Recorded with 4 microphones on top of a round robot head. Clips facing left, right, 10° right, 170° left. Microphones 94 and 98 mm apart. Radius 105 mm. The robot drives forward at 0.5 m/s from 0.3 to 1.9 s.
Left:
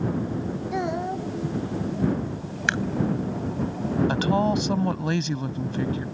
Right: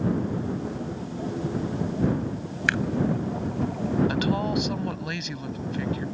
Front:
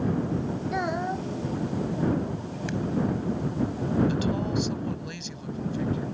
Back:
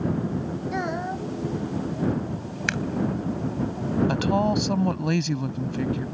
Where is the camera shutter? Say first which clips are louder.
Even, back 3 dB; 155° left.